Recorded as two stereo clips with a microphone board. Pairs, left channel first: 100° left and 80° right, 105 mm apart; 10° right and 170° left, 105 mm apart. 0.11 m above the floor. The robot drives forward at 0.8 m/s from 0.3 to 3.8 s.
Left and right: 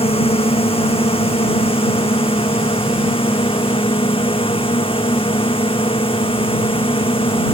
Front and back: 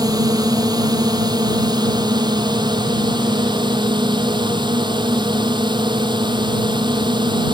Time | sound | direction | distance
0.0 | a drone | 115° left | ?